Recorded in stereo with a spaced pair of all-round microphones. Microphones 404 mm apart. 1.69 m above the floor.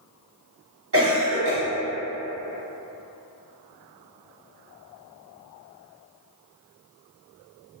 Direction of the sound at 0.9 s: 35° right (ahead or behind).